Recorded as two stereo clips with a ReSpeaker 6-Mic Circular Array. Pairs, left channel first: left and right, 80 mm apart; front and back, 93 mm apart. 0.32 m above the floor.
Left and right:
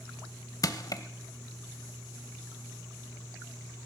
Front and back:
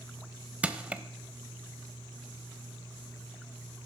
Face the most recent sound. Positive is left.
turn(degrees=105)